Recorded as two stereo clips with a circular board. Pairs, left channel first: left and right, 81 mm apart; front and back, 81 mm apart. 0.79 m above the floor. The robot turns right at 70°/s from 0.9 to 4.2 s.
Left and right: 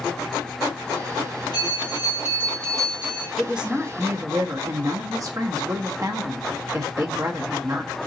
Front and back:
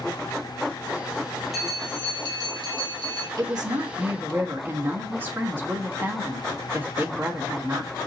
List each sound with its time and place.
1.5 s a bell: 90° left, 1.8 m; by 3.3 s 150° right, 1.8 m
3.4 s a woman speaking: straight behind, 1.1 m; by 7.9 s 125° right, 1.1 m